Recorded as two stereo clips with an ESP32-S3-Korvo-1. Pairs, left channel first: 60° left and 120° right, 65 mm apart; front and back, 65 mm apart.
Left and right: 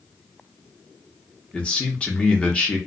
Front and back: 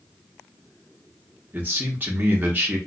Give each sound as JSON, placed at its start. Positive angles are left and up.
{"t": 1.5, "sound": "a man speaking", "azimuth_deg": 130, "distance_m": 1.1}